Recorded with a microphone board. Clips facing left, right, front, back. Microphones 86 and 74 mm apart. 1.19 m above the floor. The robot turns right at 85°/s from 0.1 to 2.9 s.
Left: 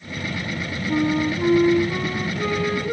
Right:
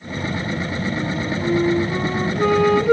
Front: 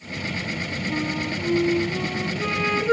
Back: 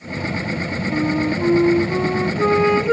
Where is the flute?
100° left, 0.8 m; by 2.9 s 90° right, 0.8 m.